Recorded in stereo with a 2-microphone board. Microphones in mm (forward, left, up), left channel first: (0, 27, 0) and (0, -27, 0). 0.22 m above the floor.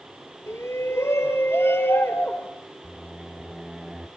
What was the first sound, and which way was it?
A shout, 60° left (ahead or behind).